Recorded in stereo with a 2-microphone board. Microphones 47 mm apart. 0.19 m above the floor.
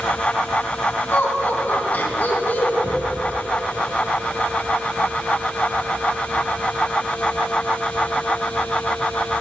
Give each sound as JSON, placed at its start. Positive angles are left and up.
{"t": 1.1, "sound": "laughter", "side_deg": 40, "distance_m": 1.4}
{"t": 2.8, "sound": "a cupboard door", "side_deg": -45, "distance_m": 3.5}